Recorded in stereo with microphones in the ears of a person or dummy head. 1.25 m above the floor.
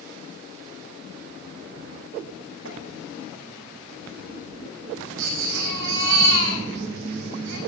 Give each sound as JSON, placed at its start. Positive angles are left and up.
{"t": 2.6, "sound": "tapping", "side_deg": -65, "distance_m": 5.5}
{"t": 5.2, "sound": "a baby crying", "side_deg": -60, "distance_m": 5.5}